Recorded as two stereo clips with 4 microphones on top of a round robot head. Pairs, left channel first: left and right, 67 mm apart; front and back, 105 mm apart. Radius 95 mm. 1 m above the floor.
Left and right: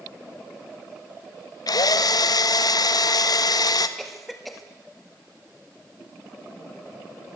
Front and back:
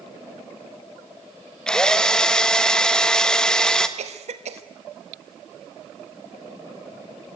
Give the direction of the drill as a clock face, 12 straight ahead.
9 o'clock.